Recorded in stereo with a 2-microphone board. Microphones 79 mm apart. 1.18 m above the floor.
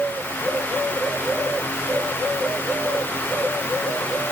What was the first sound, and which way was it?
Only background noise.